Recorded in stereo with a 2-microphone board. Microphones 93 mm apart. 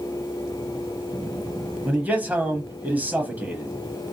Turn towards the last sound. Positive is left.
turn(degrees=-20)  # may be behind; listen again after turning